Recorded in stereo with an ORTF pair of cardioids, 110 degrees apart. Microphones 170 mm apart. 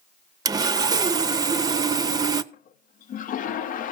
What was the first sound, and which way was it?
Sawing, 20° right.